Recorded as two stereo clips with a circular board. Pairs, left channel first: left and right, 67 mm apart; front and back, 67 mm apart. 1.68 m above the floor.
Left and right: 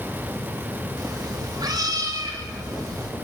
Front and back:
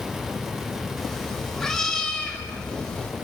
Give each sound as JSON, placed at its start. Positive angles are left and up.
{"t": 1.0, "sound": "a cat meowing", "azimuth_deg": -85, "distance_m": 5.0}